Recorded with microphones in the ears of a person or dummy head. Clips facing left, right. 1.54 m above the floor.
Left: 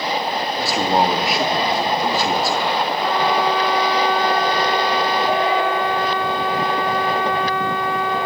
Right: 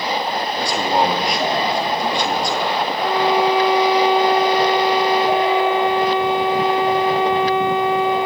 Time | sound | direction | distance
0.6 | a man speaking | 5° left (ahead or behind) | 2.5 m
3.0 | a violin | 25° right (ahead or behind) | 0.5 m